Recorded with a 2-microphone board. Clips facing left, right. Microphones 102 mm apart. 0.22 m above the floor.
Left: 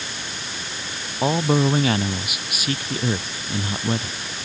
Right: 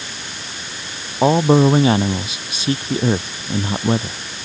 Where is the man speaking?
30° right (ahead or behind).